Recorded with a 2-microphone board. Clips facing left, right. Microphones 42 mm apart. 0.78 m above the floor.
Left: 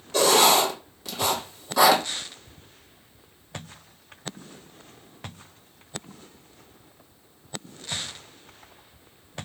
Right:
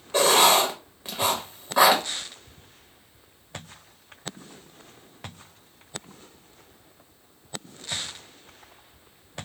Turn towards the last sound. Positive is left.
turn(degrees=-25)  # may be behind; listen again after turning